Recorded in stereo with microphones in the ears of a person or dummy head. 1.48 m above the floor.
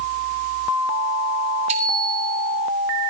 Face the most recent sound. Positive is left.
turn(degrees=-40)  # may be behind; listen again after turning